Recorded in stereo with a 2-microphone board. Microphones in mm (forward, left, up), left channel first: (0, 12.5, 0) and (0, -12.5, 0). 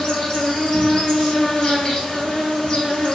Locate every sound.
0.0 s an insect: 25° left (ahead or behind), 0.8 m